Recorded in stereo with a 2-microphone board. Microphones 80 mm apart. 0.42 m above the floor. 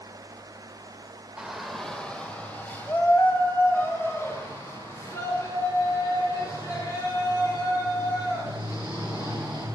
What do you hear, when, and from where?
1.4 s a shout: 10° right (ahead or behind), 1.0 m; by 9.6 s 45° left (ahead or behind), 7 m